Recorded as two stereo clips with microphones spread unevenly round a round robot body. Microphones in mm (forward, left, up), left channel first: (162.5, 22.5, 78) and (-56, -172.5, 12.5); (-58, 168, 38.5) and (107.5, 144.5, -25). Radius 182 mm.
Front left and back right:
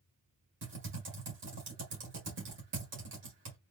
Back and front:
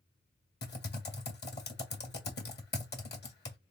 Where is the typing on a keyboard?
160° left, 1.5 m.